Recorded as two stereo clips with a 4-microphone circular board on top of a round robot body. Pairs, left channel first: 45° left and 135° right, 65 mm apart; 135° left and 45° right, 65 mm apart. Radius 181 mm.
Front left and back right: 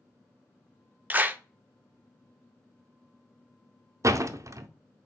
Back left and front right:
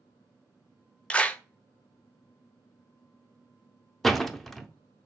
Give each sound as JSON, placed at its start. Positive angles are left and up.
{"t": 1.1, "sound": "a clap", "azimuth_deg": -170, "distance_m": 0.7}
{"t": 4.0, "sound": "a door slam", "azimuth_deg": -140, "distance_m": 0.6}